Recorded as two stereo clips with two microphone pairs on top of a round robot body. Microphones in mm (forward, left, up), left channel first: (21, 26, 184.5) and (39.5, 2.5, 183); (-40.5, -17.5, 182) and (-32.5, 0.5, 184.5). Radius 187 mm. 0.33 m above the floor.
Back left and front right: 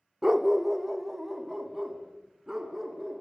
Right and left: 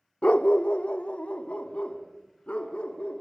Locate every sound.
0.2 s a dog barking: 125° right, 0.6 m